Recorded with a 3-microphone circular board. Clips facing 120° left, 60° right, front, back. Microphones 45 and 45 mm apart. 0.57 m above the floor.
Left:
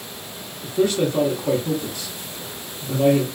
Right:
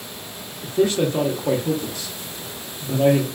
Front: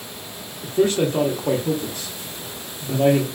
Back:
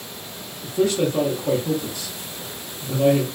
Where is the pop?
I don't hear a pop.